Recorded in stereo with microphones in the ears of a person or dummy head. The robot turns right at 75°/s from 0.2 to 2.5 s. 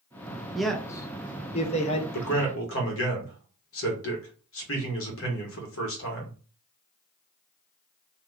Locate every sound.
0.6 s a man speaking: centre (ahead or behind), 0.5 m; by 2.0 s 30° left (ahead or behind), 0.5 m
2.1 s a man speaking: 55° left (ahead or behind), 1.3 m; by 6.3 s 70° left (ahead or behind), 1.3 m